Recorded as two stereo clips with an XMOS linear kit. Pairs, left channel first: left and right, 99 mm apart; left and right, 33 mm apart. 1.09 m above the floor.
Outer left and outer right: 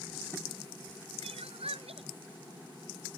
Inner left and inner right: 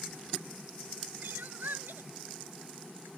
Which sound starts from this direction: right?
Crying, at 1.2 s.